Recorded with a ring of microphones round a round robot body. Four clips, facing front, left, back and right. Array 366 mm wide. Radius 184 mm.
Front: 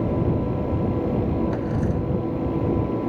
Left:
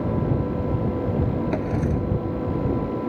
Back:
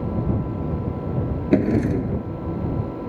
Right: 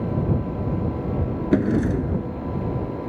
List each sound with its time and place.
1.5 s a drawer: 145° right